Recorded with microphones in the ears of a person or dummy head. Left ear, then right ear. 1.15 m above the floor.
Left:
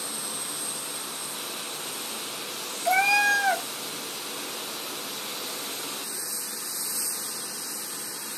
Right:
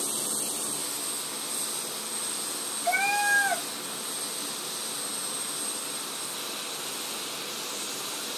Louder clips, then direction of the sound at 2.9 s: Left 4 dB; 45° left (ahead or behind).